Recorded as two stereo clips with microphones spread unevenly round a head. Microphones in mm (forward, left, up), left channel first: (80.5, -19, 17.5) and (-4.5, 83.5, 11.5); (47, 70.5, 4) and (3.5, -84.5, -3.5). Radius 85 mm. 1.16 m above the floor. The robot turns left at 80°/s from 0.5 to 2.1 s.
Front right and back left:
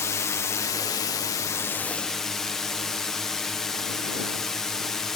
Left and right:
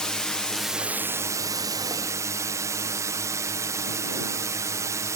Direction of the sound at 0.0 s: 10° right.